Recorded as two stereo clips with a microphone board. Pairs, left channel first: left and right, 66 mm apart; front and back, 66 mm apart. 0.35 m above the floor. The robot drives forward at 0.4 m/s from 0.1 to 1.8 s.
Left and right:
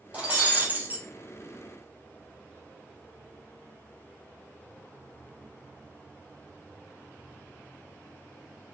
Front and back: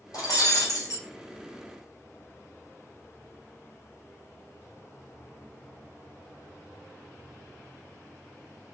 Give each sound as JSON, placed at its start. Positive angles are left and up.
{"t": 0.1, "sound": "breaking glass", "azimuth_deg": -20, "distance_m": 1.3}